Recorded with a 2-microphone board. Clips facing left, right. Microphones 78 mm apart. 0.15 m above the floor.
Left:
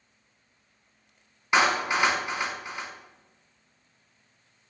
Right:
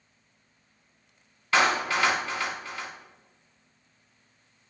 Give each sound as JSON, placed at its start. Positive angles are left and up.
{"t": 1.5, "sound": "a clap", "side_deg": 20, "distance_m": 0.9}